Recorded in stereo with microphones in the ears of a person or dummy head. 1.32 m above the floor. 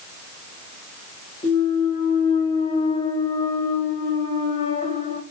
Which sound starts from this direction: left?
A clunk, at 1.4 s.